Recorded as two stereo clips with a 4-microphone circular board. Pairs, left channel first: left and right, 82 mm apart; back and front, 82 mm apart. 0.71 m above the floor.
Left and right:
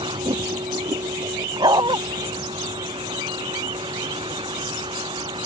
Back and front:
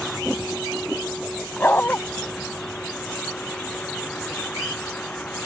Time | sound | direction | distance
0.0 | a vehicle | 90° right | ?
1.6 | a dog barking | 110° right | ?